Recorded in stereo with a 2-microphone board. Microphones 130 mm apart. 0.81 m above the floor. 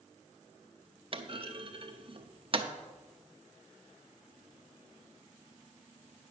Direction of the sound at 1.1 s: 40° right (ahead or behind).